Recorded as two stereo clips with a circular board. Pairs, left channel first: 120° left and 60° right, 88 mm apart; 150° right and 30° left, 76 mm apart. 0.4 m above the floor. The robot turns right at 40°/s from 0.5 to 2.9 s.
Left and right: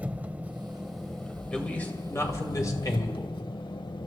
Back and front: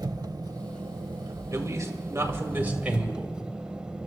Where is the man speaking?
45° left, 2 m; by 3.4 s 100° left, 2 m.